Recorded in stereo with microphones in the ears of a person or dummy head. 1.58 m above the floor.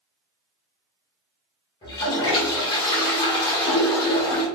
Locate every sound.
1.8 s a toilet flushing: 30° left (ahead or behind), 1.5 m